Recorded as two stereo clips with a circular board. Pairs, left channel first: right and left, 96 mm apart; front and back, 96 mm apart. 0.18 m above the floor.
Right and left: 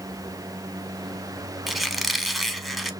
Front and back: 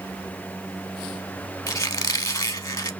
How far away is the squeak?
About 0.5 m.